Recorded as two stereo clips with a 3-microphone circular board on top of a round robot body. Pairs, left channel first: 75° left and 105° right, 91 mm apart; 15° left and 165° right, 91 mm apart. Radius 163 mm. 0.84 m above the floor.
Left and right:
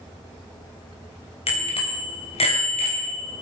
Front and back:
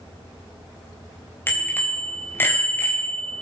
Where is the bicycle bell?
85° left, 3.5 m.